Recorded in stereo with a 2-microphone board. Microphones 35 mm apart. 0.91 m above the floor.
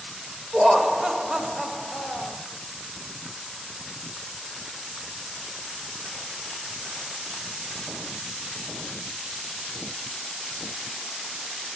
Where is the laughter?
25° right (ahead or behind), 1.2 m.